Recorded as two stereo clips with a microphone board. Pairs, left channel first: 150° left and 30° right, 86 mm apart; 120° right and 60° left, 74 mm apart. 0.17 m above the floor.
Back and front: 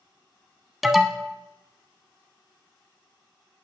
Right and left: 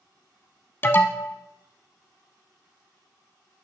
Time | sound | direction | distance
0.8 | an alarm | 115° right | 0.8 m